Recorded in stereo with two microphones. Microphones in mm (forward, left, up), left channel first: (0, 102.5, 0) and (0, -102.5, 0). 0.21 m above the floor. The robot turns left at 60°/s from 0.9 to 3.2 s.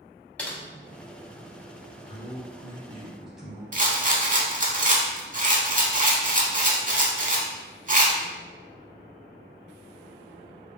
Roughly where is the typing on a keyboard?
Centre.